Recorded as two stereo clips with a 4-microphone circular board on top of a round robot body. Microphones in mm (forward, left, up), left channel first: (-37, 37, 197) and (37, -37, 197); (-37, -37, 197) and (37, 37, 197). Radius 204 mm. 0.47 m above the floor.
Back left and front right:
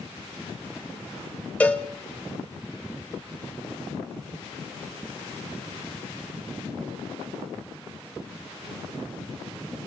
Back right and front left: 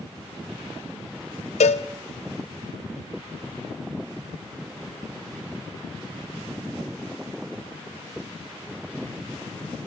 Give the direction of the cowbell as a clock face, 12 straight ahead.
5 o'clock.